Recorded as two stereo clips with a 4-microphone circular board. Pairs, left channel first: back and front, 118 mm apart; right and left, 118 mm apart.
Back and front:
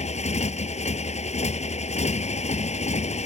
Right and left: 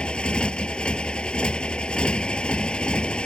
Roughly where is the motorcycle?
Behind.